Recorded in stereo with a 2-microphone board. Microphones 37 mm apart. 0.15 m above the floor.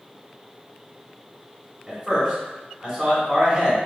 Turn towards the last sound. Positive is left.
turn(degrees=0)  # may be behind; listen again after turning